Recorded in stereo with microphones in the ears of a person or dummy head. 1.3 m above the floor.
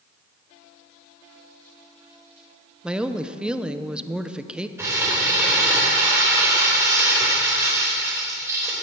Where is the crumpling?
15° right (ahead or behind), 3.5 m.